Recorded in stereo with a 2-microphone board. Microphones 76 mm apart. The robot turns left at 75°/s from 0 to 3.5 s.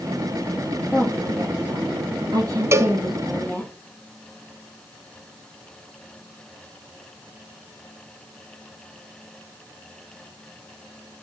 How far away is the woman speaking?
About 6 m.